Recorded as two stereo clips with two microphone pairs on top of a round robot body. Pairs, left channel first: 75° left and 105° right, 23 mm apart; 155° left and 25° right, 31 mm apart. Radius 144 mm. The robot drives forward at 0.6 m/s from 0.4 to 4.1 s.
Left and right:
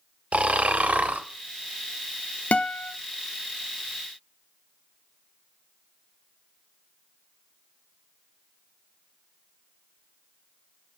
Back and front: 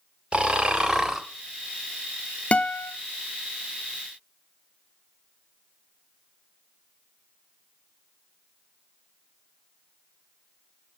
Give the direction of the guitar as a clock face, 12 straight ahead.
9 o'clock.